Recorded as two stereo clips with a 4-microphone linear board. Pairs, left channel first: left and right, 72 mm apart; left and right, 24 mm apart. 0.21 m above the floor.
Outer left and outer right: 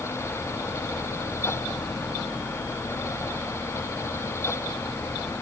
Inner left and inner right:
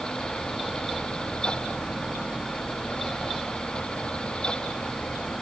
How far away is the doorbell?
No doorbell in this recording.